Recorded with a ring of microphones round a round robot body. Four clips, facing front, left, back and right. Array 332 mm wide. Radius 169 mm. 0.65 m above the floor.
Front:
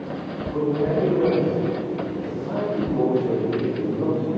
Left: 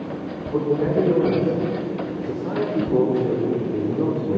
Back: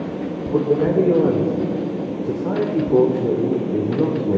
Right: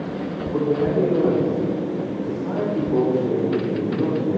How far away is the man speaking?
About 2.0 m.